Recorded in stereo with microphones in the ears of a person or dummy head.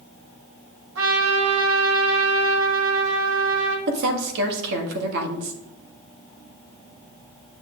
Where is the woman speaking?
60° right (ahead or behind), 1.8 m.